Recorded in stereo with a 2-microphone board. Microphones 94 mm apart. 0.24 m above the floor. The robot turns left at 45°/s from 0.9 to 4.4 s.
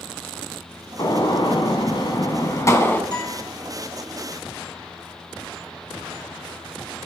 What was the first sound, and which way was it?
A gunshot, 120° left.